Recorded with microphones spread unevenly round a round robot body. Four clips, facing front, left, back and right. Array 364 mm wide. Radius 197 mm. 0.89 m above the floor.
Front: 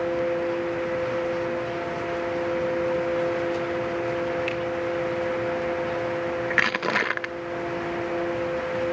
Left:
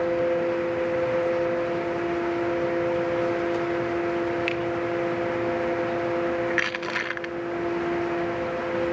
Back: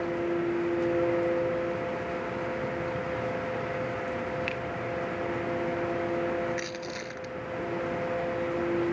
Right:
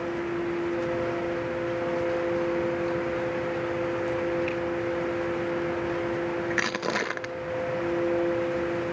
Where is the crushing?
25° right, 0.6 m.